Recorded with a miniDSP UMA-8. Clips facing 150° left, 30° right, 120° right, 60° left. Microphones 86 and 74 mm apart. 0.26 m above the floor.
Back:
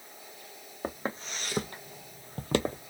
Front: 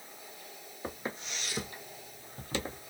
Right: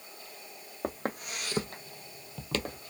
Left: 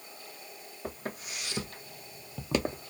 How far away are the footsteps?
About 1.0 m.